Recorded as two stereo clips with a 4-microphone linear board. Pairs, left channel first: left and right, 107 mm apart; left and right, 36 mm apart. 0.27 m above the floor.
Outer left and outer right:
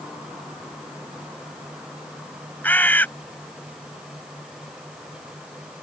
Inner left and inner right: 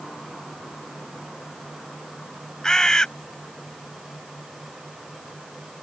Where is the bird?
15° left (ahead or behind).